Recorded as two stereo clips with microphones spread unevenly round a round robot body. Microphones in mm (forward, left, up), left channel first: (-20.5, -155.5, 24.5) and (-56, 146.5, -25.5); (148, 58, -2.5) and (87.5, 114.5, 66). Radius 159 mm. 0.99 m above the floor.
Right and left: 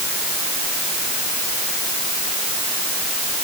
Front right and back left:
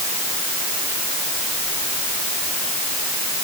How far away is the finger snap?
I don't hear a finger snap.